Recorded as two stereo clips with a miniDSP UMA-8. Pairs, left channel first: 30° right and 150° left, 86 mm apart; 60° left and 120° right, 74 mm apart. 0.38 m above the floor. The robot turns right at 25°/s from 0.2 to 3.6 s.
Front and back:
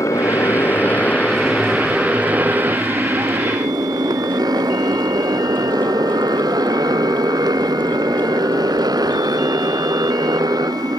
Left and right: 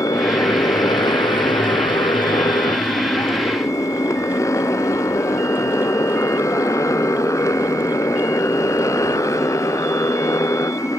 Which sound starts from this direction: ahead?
A motorcycle, at 0.0 s.